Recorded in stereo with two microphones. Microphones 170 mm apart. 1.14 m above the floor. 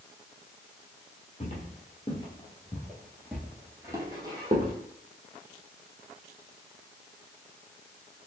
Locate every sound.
1.4 s footsteps: 40° left (ahead or behind), 1.5 m; by 4.7 s 35° right (ahead or behind), 1.5 m